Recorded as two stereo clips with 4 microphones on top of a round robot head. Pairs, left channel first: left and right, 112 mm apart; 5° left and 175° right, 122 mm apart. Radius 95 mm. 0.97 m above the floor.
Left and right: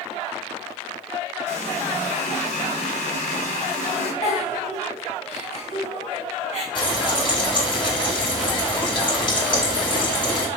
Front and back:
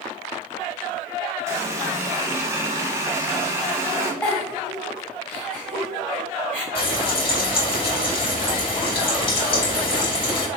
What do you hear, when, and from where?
1.5 s a running tap: 115° left, 1.1 m
4.2 s a giggle: 80° left, 2.5 m
6.8 s frying: 45° left, 2.0 m